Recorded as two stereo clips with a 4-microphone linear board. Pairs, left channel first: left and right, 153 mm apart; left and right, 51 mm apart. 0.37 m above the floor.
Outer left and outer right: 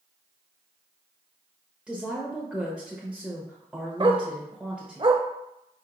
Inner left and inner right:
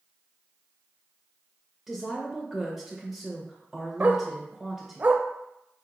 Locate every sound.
1.9 s a woman speaking: 5° right (ahead or behind), 0.9 m
4.0 s a dog barking: 35° right (ahead or behind), 0.6 m